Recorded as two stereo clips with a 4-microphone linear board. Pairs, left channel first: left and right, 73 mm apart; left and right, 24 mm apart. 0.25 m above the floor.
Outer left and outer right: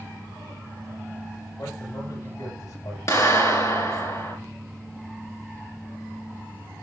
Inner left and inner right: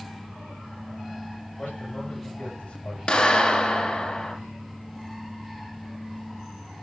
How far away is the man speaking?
About 7 m.